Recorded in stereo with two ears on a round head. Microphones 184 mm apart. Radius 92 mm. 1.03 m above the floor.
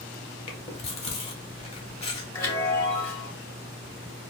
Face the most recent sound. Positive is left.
turn(degrees=20)  # may be behind; listen again after turning